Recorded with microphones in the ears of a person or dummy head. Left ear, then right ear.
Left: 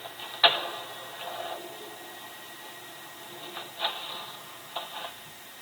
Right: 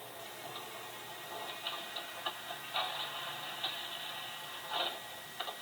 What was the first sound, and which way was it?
Only background noise.